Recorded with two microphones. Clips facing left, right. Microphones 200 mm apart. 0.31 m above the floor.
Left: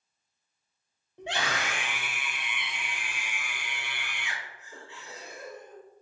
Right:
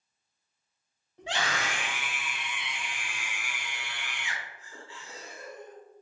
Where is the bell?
I don't hear a bell.